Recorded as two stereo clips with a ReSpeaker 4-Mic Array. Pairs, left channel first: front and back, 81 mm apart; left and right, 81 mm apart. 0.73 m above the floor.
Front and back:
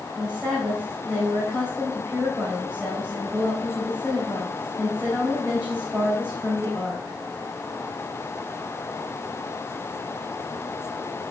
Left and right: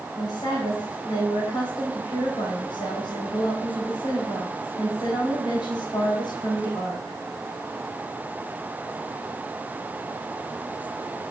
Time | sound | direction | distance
0.1 | a woman speaking | 100° left | 3.5 m